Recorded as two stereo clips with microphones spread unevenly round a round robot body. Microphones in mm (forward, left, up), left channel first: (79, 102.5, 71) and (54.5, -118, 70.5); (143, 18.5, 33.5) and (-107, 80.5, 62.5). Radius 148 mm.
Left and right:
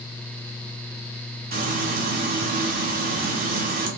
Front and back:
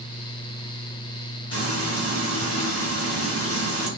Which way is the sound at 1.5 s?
60° right.